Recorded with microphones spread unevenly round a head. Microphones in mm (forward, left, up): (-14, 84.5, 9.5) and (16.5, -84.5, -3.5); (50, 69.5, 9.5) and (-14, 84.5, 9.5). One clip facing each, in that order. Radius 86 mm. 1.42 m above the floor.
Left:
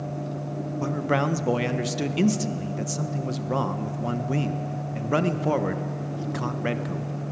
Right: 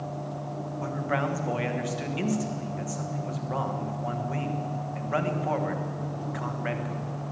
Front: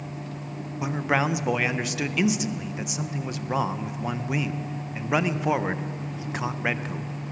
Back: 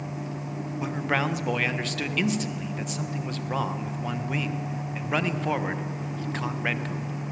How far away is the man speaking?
About 1.3 m.